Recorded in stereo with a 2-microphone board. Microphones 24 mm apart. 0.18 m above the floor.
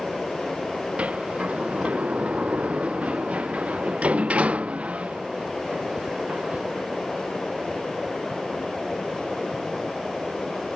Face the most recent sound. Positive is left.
turn(degrees=-70)  # may be behind; listen again after turning